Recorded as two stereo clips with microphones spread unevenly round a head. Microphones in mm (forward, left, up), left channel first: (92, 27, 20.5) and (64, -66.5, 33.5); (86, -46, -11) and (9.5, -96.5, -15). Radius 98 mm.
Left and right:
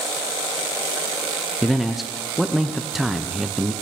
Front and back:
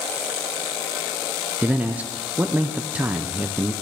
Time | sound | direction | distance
1.6 | a man speaking | 155° left | 0.5 m